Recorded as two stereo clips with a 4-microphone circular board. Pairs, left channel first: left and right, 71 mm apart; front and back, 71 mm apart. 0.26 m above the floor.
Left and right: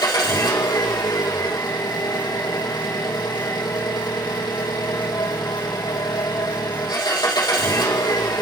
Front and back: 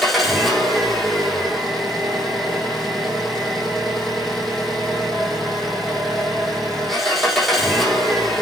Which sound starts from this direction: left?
An engine running, at 0.0 s.